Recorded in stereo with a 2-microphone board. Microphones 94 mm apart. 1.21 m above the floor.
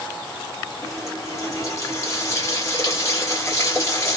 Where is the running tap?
30° left (ahead or behind), 1.3 m.